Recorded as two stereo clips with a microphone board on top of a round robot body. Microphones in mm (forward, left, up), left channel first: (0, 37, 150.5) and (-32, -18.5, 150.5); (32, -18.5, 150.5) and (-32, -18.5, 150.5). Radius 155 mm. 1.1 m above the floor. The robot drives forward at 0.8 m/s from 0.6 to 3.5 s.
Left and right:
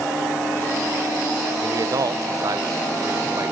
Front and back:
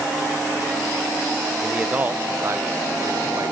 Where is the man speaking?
100° right, 1.0 m; by 3.5 s 155° right, 2.0 m.